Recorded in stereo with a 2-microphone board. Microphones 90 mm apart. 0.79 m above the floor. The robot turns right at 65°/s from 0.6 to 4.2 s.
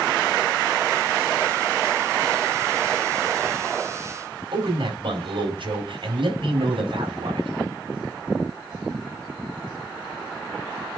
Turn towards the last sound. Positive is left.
turn(degrees=-70)  # may be behind; listen again after turning